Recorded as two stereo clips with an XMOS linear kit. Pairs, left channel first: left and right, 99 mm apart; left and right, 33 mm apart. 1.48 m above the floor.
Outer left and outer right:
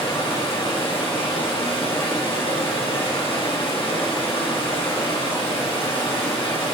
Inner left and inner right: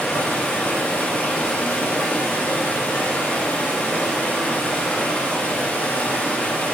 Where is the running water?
70° left (ahead or behind), 5 m.